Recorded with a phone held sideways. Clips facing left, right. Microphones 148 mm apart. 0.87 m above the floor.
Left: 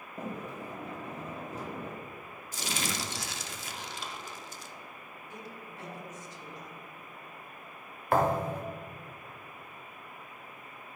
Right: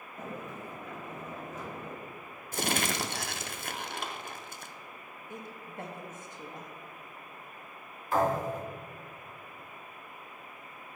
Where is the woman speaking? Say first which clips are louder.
Right 3 dB; 55° right (ahead or behind), 1.4 m.